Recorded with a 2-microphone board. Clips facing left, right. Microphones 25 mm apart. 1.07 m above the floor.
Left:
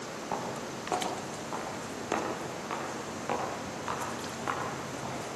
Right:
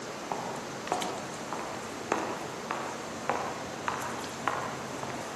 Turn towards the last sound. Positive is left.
turn(degrees=-40)  # may be behind; listen again after turning